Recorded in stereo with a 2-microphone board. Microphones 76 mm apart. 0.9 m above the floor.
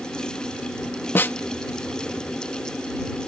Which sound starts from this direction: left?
A snare drum, at 1.1 s.